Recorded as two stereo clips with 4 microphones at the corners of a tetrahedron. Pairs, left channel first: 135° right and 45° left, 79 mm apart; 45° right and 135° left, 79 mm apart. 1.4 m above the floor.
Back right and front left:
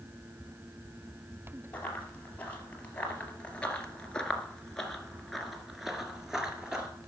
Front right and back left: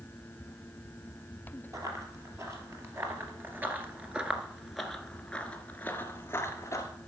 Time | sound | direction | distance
1.7 | running footsteps | 160° left | 2 m